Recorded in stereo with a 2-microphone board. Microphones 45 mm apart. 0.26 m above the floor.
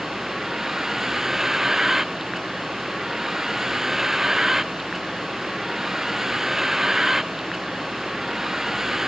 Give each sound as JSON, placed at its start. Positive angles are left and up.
{"t": 0.0, "sound": "a vehicle", "side_deg": -10}